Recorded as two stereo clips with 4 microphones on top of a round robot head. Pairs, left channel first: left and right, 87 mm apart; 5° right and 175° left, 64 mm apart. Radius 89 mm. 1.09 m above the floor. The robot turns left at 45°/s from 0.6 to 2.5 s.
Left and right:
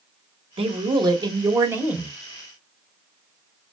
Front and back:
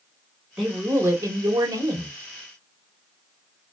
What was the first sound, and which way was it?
A man speaking, 105° right.